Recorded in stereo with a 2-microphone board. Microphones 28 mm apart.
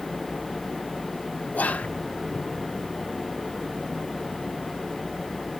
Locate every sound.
1.5 s whispering: 75° left (ahead or behind), 1.3 m